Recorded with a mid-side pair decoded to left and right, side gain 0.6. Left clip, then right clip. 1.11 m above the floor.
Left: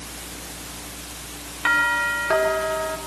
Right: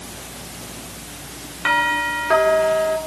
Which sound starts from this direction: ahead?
A doorbell, at 1.6 s.